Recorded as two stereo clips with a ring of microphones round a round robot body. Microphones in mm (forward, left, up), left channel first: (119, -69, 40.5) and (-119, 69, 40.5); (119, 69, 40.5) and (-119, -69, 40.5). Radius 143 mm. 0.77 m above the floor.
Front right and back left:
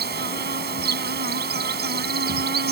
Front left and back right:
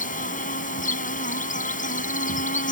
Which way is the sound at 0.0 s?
95° left.